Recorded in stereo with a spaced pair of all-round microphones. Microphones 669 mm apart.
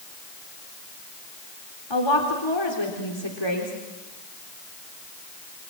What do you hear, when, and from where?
1.9 s a woman speaking: 40° left (ahead or behind), 3.5 m